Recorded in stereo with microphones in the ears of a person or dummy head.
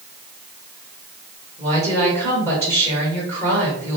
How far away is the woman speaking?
About 1.5 m.